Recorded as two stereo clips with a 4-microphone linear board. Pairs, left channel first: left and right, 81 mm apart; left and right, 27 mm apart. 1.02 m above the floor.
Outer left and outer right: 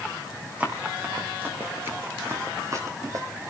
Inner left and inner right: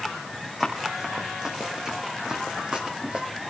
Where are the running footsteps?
20° right (ahead or behind), 3 m; by 3.2 s 45° right (ahead or behind), 2 m.